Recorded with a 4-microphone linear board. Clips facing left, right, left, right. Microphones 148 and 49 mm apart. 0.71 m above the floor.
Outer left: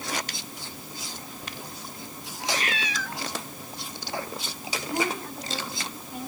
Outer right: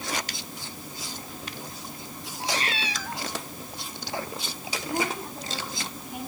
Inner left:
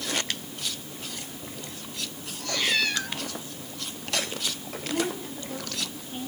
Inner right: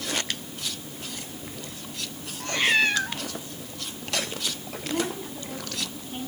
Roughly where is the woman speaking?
Centre.